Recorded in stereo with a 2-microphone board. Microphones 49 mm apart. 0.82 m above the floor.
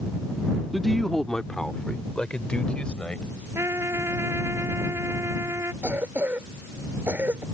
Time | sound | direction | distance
0.7 | a man speaking | centre (ahead or behind) | ?
3.5 | a trumpet | 65° right (ahead or behind) | ?
5.8 | a cough | 45° right (ahead or behind) | ?